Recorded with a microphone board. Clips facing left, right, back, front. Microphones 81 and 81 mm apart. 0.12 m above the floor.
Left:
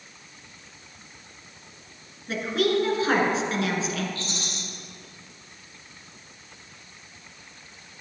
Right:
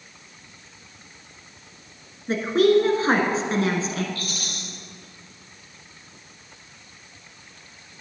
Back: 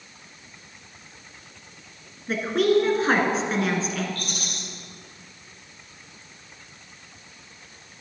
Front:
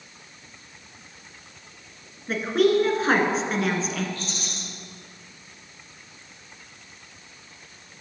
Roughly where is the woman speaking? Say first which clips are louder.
Right 6 dB, even; right.